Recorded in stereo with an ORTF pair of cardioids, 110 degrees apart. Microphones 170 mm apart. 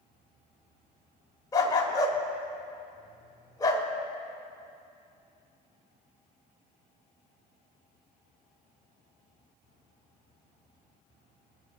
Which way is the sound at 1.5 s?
20° left.